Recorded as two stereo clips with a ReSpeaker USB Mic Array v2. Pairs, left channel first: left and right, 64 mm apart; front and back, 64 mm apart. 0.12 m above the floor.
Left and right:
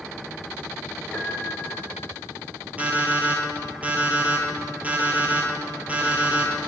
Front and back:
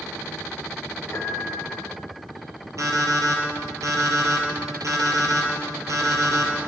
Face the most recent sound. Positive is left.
turn(degrees=-155)